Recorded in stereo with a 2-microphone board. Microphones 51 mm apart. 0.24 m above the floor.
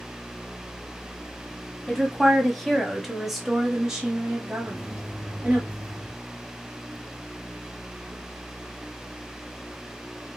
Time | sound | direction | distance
1.9 | a woman speaking | 10° left (ahead or behind) | 1.3 m
4.6 | a microwave | 5° right (ahead or behind) | 2.0 m